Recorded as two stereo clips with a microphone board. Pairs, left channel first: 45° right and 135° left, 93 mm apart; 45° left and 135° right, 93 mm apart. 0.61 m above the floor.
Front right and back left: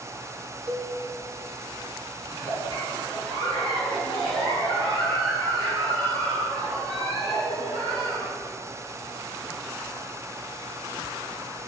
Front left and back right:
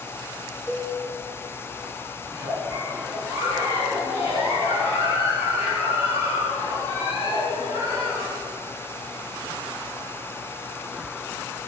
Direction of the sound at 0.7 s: 160° left.